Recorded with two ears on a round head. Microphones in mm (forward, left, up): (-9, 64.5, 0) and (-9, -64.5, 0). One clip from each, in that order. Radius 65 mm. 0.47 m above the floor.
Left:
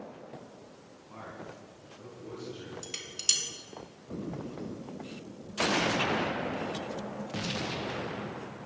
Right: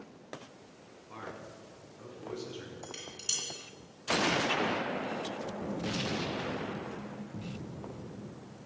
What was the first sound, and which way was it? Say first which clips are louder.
A man speaking: even; 70° right (ahead or behind).